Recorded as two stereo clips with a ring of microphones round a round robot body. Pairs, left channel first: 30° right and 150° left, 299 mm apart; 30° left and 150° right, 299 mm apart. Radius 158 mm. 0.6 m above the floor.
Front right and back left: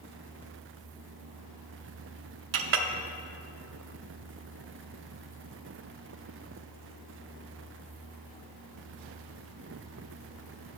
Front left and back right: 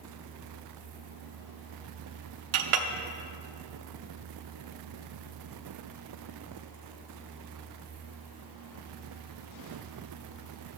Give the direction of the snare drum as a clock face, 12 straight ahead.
I don't hear a snare drum.